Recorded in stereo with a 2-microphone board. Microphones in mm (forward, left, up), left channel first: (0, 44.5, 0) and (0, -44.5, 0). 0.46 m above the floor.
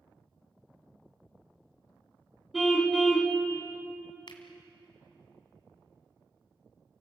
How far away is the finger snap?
About 2.5 m.